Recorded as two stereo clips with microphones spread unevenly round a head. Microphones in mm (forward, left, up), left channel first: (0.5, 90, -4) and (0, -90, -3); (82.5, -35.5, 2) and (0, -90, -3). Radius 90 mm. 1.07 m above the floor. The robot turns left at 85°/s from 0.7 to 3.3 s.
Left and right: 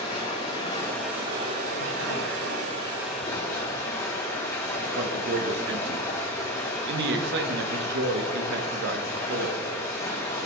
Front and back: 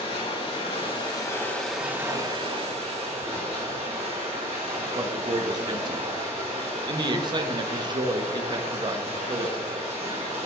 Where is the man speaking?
110° right, 0.8 m.